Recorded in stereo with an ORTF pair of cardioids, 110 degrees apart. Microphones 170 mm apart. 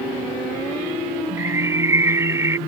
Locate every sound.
1.4 s a bird: 15° right